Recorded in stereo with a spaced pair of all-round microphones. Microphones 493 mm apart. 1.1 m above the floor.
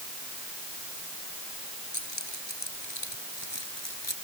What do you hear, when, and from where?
1.9 s keys jangling: 60° left (ahead or behind)